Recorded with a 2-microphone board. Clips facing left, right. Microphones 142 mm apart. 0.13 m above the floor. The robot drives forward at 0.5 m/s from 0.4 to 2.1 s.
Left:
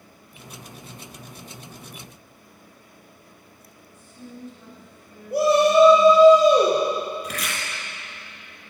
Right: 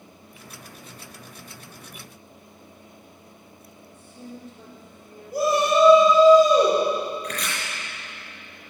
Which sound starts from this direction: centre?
Chopping, at 7.2 s.